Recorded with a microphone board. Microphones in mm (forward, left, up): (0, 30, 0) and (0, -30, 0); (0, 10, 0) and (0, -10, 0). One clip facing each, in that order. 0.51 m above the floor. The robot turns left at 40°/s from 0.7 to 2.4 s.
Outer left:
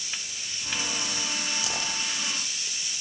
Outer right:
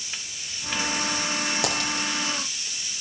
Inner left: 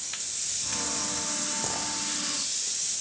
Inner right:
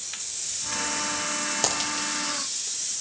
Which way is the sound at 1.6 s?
65° right (ahead or behind).